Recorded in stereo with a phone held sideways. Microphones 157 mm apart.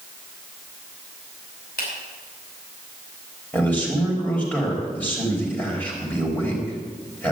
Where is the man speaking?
10° left (ahead or behind), 4 m.